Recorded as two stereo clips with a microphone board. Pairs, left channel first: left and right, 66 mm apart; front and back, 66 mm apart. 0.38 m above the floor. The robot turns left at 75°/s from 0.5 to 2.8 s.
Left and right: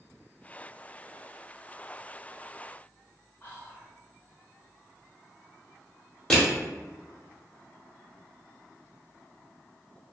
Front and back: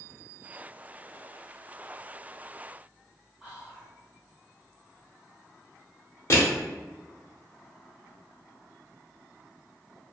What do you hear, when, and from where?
3.4 s whispering: 120° left, 1.5 m
6.3 s crushing: 10° left, 0.9 m